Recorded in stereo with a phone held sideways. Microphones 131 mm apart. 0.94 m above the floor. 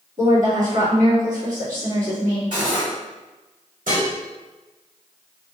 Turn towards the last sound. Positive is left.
turn(degrees=-85)